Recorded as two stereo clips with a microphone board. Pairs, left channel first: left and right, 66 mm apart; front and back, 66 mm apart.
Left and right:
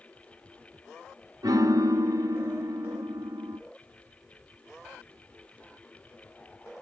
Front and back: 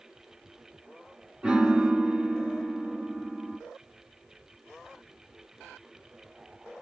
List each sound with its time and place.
1.4 s a piano: 105° right, 1.3 m